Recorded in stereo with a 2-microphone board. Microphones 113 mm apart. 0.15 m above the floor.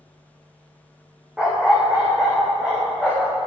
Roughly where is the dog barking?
Centre.